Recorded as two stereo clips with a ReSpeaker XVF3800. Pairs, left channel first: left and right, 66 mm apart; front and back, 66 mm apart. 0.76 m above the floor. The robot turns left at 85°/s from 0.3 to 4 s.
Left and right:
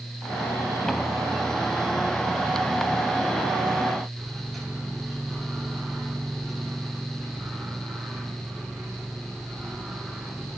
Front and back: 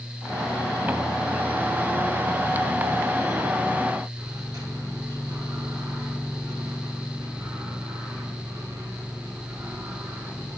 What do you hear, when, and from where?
4.2 s a microwave: straight behind, 6.5 m